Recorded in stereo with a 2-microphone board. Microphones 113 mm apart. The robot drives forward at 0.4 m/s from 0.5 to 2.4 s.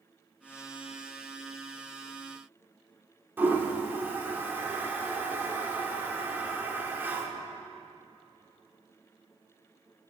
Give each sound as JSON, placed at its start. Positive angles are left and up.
{"t": 3.4, "sound": "a toilet flushing", "side_deg": -20, "distance_m": 1.4}